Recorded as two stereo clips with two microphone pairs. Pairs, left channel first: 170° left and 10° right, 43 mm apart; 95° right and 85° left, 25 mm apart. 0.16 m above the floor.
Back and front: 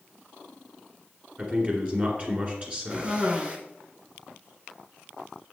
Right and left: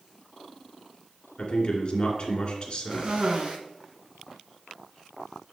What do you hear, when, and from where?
1.4 s a man speaking: 55° right, 1.9 m
2.9 s a cough: 45° left, 1.9 m